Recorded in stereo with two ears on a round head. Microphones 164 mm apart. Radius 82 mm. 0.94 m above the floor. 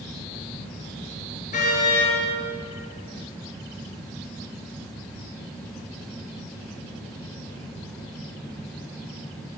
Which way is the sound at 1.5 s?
45° left (ahead or behind).